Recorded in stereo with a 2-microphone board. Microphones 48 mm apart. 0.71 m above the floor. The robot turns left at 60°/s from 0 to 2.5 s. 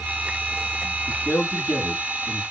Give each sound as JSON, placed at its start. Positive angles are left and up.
{"t": 1.1, "sound": "a man speaking", "side_deg": 35, "distance_m": 2.0}